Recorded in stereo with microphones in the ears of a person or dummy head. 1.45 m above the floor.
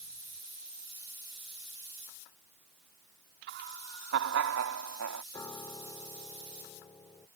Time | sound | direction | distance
3.5 | laughter | 55° right (ahead or behind) | ?
5.3 | a piano | 20° left (ahead or behind) | ?